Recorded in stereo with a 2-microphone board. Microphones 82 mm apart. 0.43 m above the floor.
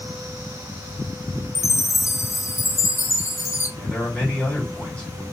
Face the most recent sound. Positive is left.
turn(degrees=15)  # may be behind; listen again after turning